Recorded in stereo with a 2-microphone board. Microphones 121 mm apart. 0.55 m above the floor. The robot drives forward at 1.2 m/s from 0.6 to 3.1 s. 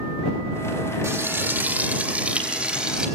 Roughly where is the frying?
Right.